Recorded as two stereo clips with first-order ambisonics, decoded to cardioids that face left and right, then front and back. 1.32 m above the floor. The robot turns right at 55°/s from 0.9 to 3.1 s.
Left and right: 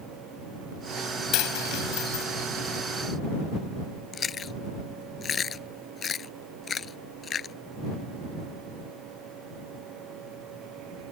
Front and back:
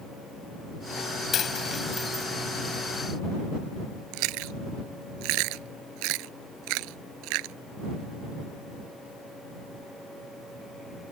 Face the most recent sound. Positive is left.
turn(degrees=160)